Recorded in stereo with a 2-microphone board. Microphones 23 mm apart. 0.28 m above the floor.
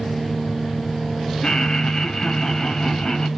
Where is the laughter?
40° left (ahead or behind), 1.1 m.